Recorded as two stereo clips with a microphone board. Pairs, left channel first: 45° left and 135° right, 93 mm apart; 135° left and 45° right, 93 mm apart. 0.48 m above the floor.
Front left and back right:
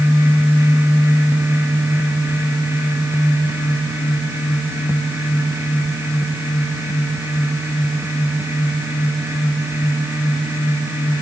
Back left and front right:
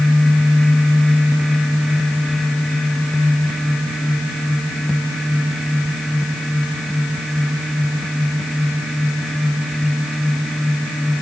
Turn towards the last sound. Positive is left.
No sound to turn to.